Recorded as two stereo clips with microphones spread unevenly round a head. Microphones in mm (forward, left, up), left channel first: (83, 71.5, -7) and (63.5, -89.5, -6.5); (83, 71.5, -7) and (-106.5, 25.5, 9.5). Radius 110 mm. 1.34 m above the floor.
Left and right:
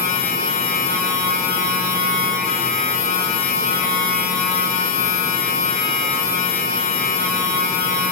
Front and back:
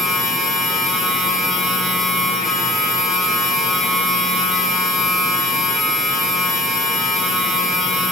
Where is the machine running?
110° left, 1.6 m.